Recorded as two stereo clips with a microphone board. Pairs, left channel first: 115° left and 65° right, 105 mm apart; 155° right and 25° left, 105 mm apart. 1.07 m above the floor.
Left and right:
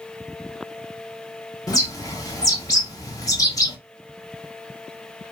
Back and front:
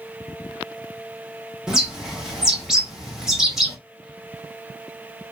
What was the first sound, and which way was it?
A bird, 105° left.